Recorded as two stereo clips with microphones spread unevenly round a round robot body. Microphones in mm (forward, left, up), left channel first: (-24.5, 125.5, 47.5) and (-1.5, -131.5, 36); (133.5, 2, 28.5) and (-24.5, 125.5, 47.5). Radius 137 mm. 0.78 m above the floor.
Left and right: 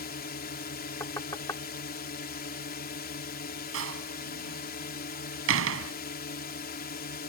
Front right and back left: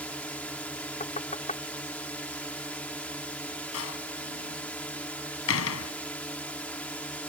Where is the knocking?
15° left.